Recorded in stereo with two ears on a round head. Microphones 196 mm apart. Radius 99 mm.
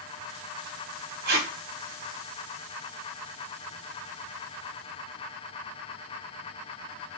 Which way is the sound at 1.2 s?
45° right (ahead or behind).